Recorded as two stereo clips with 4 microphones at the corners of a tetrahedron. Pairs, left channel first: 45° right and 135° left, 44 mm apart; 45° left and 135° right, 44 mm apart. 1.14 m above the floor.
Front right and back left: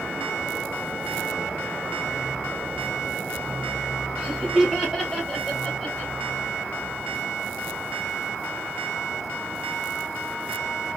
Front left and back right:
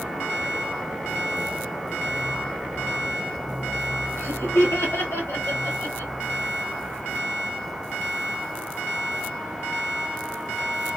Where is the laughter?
60° left, 3.5 m; by 6.1 s 35° left, 3 m.